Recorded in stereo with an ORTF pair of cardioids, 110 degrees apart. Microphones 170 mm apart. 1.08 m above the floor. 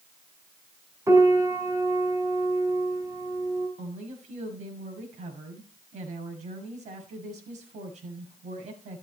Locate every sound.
1.1 s a piano: 20° right, 5.5 m
3.8 s a woman speaking: 45° right, 5.5 m